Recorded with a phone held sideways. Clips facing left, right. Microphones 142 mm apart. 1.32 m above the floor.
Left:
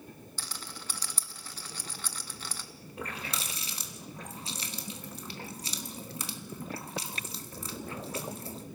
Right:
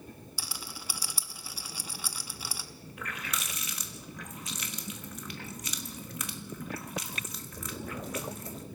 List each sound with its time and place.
0.4 s a rattle: 10° right (ahead or behind), 1.0 m
3.0 s a running tap: 30° left (ahead or behind), 1.3 m